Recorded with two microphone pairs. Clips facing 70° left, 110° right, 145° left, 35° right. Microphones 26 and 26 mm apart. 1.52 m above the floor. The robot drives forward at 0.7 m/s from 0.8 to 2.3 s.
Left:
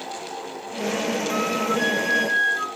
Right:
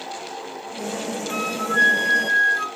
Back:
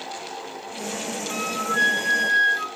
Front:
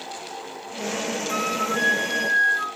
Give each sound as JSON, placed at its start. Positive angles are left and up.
{"t": 1.3, "sound": "a flute", "azimuth_deg": -140, "distance_m": 2.0}